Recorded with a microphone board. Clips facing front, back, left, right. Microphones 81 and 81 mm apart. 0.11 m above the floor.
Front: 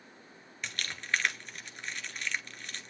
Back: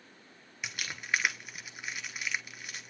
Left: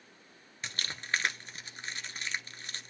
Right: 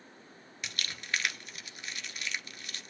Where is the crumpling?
105° left, 1.1 m.